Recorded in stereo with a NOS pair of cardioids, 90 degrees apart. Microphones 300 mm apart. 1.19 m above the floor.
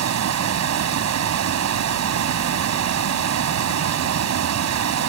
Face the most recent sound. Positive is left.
turn(degrees=-65)